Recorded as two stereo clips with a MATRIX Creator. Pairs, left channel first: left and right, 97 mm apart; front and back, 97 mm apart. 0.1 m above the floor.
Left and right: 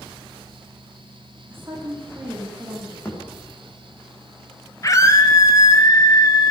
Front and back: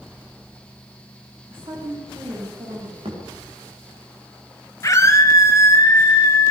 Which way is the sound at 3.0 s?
160° left.